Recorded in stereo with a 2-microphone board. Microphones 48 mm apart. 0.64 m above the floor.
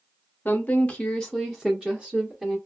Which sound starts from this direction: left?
A woman speaking, at 0.5 s.